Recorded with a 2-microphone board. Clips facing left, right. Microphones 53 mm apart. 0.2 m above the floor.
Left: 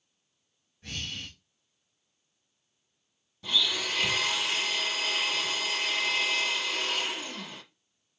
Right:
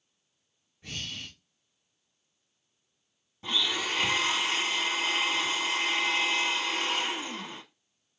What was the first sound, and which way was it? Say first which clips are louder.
Breathing: left 1 dB; 15° right (ahead or behind).